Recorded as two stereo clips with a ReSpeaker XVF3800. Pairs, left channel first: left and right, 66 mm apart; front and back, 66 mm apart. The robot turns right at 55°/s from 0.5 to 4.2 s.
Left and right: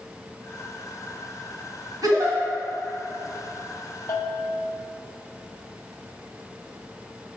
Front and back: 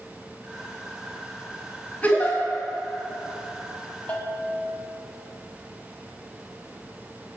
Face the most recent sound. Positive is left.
turn(degrees=70)